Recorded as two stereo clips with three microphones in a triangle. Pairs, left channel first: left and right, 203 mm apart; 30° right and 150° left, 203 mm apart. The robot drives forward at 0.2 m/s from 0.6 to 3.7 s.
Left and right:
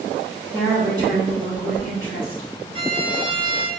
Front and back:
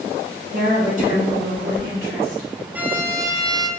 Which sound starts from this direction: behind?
A woman speaking, at 0.5 s.